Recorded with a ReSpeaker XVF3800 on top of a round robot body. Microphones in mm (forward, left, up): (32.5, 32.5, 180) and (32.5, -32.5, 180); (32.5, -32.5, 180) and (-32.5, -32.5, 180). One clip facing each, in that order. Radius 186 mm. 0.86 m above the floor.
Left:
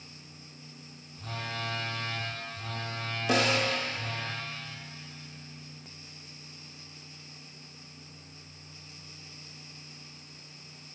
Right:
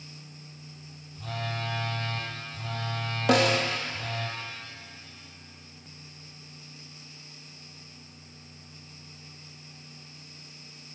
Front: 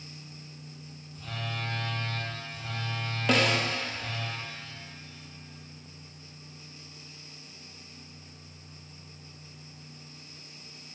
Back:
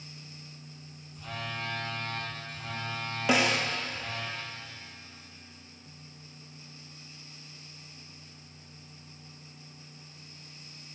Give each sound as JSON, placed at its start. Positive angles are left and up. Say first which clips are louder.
{"t": 1.1, "sound": "a phone buzzing", "louder": "right 3 dB, even", "azimuth_deg": -95, "distance_m": 5.5}
{"t": 3.3, "sound": "a snare drum", "louder": "right 4 dB, front 1 dB", "azimuth_deg": -100, "distance_m": 1.9}